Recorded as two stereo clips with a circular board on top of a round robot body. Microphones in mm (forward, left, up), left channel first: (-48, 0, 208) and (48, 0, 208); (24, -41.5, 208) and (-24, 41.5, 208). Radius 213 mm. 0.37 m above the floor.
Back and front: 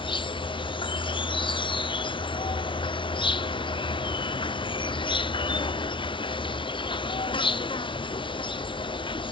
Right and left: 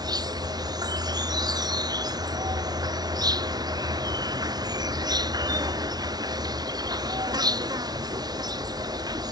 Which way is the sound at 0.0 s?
160° left.